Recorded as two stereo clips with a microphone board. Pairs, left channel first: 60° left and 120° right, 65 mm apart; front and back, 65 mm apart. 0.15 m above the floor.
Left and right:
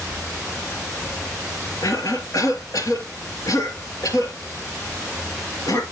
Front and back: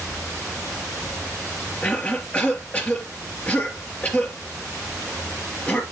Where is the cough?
65° left, 3 m.